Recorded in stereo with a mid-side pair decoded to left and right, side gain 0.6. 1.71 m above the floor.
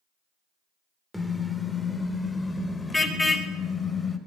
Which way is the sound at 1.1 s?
5° left.